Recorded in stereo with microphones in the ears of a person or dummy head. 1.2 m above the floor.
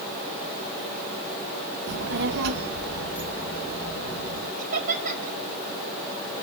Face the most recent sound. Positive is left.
turn(degrees=-40)  # may be behind; listen again after turning